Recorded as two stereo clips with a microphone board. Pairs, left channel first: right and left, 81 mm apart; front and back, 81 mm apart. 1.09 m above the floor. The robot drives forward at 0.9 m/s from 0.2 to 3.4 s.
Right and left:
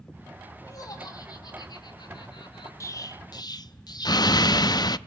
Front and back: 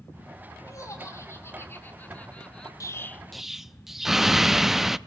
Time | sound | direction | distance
0.7 | laughter | 50° right | 3.5 m
2.8 | an explosion | 45° right | 0.8 m